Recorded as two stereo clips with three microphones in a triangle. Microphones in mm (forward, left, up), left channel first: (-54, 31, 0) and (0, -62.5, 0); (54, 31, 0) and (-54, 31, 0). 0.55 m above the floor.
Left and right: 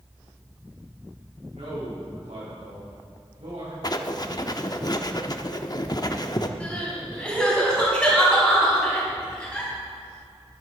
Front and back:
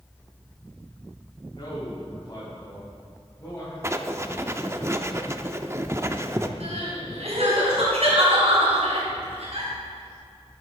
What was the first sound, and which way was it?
A man speaking, 45° right.